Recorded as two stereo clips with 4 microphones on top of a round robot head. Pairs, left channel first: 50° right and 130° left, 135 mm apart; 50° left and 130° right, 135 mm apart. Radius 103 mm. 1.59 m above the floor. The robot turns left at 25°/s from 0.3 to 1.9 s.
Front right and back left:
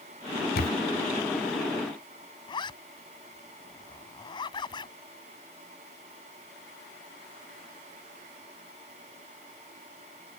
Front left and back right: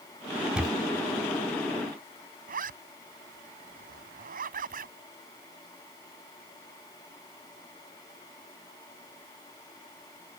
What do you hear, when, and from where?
0.6 s a camera shutter: 50° right
2.5 s a zipper: 110° right